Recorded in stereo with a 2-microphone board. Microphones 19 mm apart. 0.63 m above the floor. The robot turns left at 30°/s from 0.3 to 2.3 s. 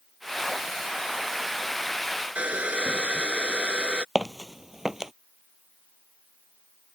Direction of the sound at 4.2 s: 30° right (ahead or behind).